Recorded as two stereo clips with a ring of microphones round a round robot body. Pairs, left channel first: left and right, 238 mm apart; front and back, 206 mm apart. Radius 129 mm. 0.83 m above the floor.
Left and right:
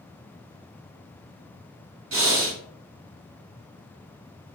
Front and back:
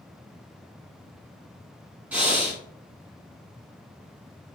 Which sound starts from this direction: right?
Breathing, at 2.1 s.